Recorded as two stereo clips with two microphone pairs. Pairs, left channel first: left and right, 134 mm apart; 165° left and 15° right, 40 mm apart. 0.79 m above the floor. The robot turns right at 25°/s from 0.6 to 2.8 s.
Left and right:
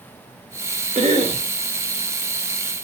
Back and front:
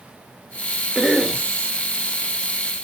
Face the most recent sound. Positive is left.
turn(degrees=-50)